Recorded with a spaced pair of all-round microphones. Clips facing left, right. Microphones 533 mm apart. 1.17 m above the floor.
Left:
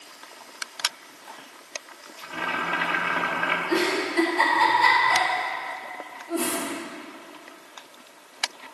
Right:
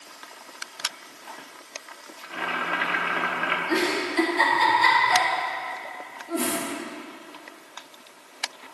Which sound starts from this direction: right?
A giggle, at 3.7 s.